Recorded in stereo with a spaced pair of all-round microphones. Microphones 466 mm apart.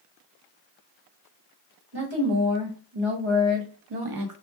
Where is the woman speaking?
60° right (ahead or behind), 1.3 m; by 4.3 s 40° right (ahead or behind), 0.6 m.